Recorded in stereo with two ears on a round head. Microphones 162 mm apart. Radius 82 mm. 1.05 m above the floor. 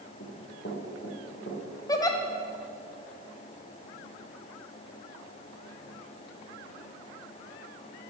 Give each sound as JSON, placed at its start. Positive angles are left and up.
{"t": 0.2, "sound": "running footsteps", "side_deg": 60, "distance_m": 4.5}
{"t": 1.9, "sound": "a giggle", "side_deg": 20, "distance_m": 1.6}